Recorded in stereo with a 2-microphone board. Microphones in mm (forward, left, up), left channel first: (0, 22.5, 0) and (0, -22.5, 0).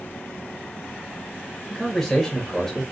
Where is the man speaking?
10° left (ahead or behind), 0.8 m.